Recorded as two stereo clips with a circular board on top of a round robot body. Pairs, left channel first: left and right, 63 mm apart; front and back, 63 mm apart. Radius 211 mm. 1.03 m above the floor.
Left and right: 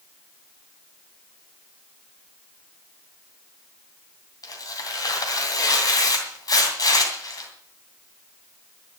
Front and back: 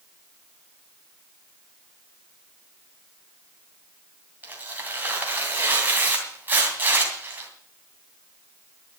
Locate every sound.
4.4 s tearing paper: 115° left, 2.5 m